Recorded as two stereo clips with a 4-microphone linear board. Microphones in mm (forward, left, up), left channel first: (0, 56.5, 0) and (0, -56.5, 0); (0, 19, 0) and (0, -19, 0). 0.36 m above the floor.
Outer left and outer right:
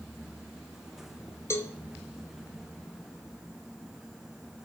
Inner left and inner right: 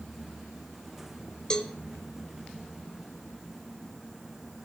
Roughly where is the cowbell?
Left.